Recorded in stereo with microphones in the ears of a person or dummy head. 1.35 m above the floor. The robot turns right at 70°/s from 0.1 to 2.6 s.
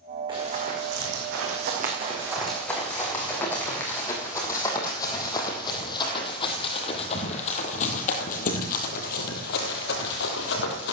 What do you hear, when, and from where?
0.3 s running footsteps: 20° right (ahead or behind), 5.5 m; by 10.9 s 60° left (ahead or behind), 2.5 m